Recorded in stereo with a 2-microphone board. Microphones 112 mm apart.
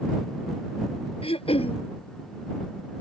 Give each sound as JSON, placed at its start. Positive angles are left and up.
{"t": 1.2, "sound": "throat clearing", "side_deg": 60}